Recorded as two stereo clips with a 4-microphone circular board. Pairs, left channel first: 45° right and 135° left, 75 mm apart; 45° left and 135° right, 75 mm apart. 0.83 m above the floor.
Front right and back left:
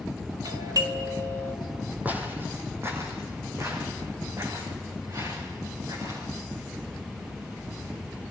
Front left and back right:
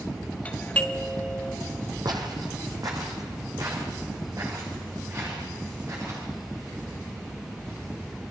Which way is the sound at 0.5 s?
115° left.